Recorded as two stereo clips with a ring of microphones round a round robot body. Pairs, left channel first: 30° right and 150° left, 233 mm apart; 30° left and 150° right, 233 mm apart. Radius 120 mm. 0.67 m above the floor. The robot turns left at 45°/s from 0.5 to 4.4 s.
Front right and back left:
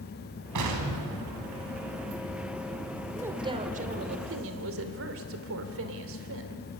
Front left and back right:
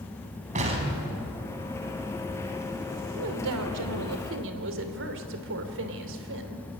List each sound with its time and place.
0.6 s an explosion: 150° left, 3.5 m; by 1.9 s 85° left, 3.5 m
3.2 s a woman speaking: 125° right, 2.5 m; by 6.8 s straight behind, 2.5 m